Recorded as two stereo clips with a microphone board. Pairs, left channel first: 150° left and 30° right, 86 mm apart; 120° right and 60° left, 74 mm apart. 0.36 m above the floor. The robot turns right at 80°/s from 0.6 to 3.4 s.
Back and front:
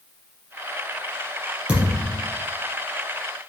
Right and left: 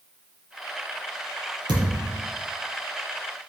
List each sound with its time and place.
1.7 s a thud: 50° left, 4 m; by 2.2 s 95° left, 4 m